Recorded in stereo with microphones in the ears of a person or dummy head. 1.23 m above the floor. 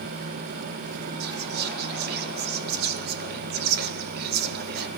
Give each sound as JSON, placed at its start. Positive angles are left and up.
{"t": 1.2, "sound": "whispering", "side_deg": -55, "distance_m": 0.7}